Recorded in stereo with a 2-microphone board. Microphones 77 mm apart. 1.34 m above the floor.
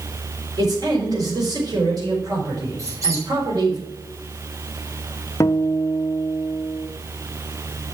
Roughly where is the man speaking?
Right.